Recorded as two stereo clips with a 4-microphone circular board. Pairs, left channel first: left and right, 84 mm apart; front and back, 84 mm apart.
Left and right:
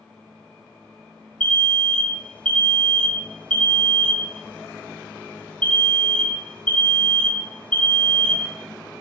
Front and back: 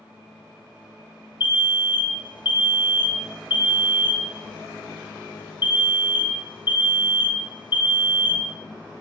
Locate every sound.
1.4 s an alarm: 15° left, 0.9 m